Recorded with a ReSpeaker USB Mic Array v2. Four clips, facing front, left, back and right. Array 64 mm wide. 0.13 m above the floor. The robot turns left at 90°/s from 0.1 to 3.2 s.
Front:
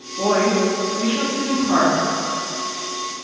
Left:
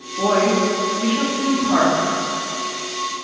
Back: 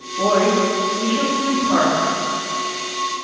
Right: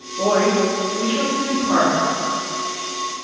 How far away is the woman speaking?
About 1.7 m.